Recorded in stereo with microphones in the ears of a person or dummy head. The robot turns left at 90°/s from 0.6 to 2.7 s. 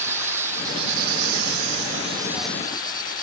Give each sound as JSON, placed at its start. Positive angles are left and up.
{"t": 0.0, "sound": "an insect", "azimuth_deg": -10}